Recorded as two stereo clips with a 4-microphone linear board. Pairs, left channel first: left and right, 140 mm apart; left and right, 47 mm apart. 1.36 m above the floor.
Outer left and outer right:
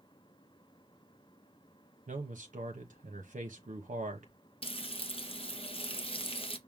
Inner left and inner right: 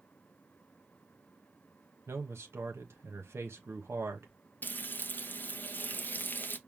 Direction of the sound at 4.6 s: 40° left (ahead or behind).